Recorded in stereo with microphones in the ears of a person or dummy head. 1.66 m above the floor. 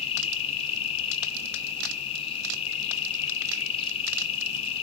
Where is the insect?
30° left (ahead or behind), 1.7 m.